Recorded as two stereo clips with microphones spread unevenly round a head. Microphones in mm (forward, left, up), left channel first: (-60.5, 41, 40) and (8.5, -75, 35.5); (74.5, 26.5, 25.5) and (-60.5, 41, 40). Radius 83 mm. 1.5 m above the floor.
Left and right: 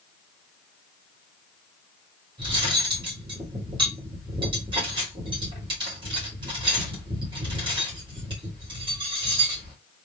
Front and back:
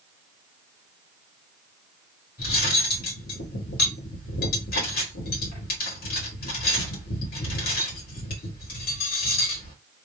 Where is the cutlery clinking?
Straight ahead, 2.5 m.